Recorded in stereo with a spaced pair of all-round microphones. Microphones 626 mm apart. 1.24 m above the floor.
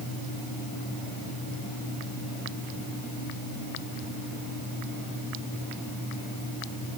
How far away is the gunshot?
I don't hear a gunshot.